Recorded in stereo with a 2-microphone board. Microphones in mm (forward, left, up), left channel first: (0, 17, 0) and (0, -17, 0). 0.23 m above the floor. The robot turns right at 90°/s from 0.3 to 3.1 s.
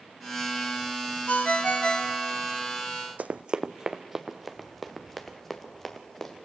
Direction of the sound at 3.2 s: 55° right (ahead or behind).